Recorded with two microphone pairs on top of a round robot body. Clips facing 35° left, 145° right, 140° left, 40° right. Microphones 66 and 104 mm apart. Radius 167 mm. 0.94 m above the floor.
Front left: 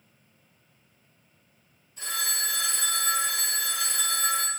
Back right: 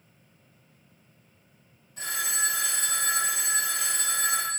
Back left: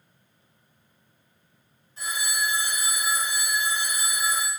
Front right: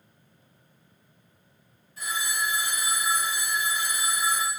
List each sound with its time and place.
2.0 s a phone ringing: 160° right, 2.0 m